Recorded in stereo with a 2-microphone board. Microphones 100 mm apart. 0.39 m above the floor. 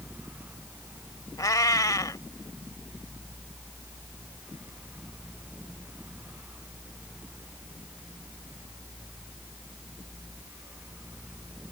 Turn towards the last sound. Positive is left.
turn(degrees=35)  # may be behind; listen again after turning